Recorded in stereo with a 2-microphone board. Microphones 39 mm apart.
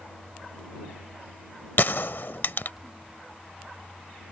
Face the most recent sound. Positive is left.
turn(degrees=60)  # may be behind; listen again after turning